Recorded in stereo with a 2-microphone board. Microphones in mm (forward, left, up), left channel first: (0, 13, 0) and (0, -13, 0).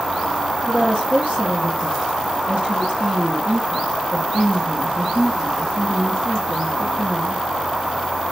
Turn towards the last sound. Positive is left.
turn(degrees=-50)  # may be behind; listen again after turning